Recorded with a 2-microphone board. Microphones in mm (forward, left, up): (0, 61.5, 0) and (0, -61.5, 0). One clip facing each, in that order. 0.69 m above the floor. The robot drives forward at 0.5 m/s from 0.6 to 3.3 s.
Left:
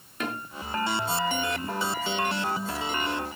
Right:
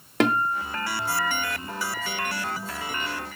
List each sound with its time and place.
0.2 s a guitar: 80° right, 0.9 m; by 1.5 s 70° right (ahead or behind), 0.9 m